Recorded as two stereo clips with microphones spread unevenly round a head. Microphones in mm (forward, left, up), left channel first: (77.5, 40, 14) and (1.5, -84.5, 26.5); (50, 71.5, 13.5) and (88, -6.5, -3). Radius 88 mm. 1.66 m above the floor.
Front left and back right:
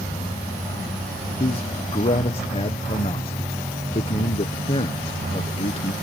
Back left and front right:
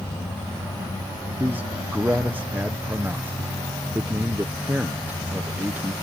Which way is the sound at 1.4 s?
5° left.